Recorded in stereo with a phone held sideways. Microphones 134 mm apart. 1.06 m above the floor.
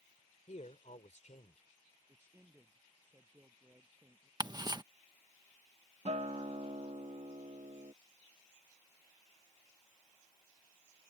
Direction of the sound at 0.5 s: 60° left (ahead or behind).